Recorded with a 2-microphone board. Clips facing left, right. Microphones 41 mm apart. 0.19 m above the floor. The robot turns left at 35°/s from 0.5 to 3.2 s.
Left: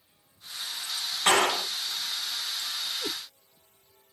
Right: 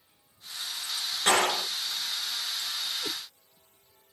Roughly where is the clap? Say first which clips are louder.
Left 2 dB; left.